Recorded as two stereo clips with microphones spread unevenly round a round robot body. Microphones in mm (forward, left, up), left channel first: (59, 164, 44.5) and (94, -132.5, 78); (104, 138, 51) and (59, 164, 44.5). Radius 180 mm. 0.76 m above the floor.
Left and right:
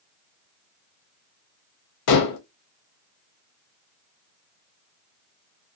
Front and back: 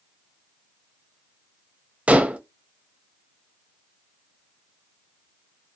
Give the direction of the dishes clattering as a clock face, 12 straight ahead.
9 o'clock.